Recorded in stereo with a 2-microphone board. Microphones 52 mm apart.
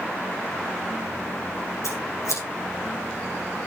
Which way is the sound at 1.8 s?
80° left.